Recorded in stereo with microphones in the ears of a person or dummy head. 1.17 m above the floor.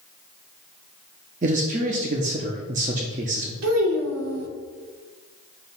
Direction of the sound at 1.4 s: 35° right (ahead or behind).